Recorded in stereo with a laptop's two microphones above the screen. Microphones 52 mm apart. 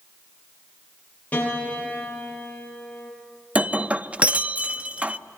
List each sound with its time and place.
1.3 s a piano: 30° left (ahead or behind), 8 m
3.5 s breaking glass: 25° right (ahead or behind), 0.7 m